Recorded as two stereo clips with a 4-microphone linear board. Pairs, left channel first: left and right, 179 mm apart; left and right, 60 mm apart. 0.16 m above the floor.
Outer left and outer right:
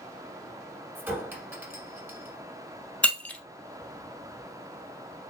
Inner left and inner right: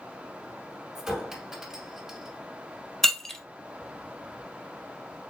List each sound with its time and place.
0.9 s a clink: 10° right (ahead or behind), 1.1 m
3.0 s breaking glass: 10° left (ahead or behind), 0.7 m